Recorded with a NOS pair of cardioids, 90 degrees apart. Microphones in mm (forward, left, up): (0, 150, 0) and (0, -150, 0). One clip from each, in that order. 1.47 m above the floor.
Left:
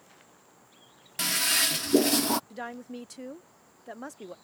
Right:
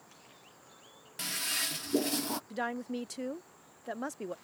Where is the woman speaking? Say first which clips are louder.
Right 3 dB; 15° right.